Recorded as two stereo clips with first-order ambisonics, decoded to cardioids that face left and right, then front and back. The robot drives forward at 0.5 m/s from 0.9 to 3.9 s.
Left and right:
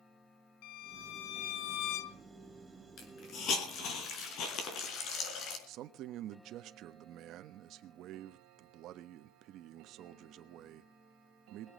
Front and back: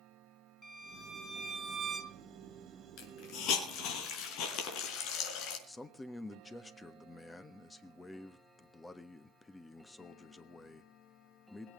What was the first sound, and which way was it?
A violin, 80° left.